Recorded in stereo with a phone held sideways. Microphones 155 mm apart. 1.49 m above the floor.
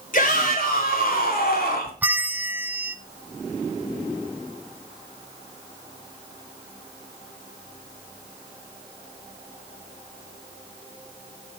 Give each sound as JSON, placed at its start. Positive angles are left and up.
{"t": 0.1, "sound": "a shout", "side_deg": 60, "distance_m": 3.5}
{"t": 2.0, "sound": "a bell", "side_deg": -10, "distance_m": 0.6}